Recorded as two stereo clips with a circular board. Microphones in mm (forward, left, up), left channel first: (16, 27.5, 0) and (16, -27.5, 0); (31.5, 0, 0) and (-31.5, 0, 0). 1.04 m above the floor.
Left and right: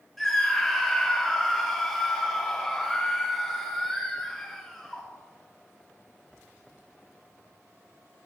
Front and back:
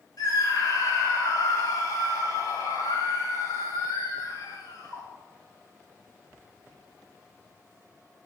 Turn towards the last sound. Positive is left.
turn(degrees=0)